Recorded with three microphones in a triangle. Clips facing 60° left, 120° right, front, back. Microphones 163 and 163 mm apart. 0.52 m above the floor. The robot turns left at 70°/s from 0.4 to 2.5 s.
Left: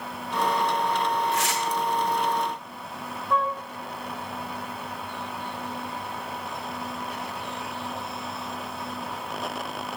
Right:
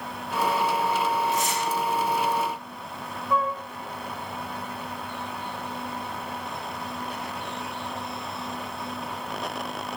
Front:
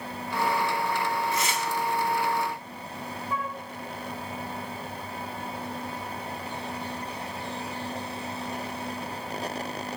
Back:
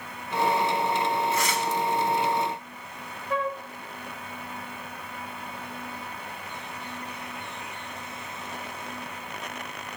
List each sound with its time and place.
1.3 s tearing paper: 75° left, 4 m; by 1.6 s 50° left, 4 m
3.3 s a flute: 155° left, 0.9 m